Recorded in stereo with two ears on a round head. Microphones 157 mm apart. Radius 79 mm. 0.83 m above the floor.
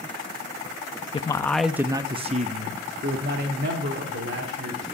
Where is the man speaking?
30° left (ahead or behind), 0.6 m; by 4.8 s 65° right (ahead or behind), 2.5 m.